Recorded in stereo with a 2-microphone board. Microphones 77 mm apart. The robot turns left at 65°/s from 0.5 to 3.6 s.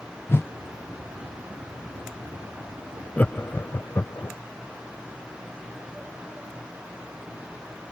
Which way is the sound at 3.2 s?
20° left (ahead or behind).